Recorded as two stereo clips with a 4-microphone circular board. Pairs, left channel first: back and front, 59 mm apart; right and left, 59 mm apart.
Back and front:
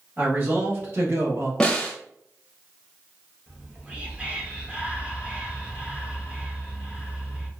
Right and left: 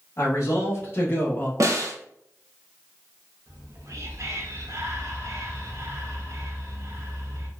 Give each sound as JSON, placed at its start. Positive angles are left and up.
{"t": 0.2, "sound": "a man speaking", "azimuth_deg": -50, "distance_m": 1.5}
{"t": 1.6, "sound": "a snare drum", "azimuth_deg": 105, "distance_m": 0.7}
{"t": 3.5, "sound": "whispering", "azimuth_deg": 65, "distance_m": 1.0}